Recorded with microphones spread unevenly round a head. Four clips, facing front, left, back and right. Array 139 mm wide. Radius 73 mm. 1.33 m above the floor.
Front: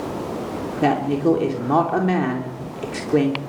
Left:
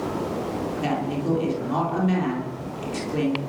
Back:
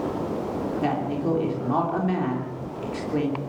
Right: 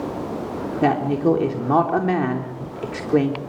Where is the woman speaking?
45° right, 3.5 m.